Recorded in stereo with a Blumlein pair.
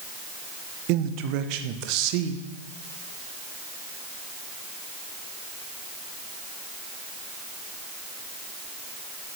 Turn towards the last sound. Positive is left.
turn(degrees=-40)